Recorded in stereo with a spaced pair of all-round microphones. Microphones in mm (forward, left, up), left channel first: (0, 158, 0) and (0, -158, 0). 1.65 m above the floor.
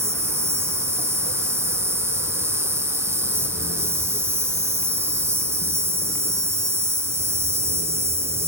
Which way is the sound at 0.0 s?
10° right (ahead or behind).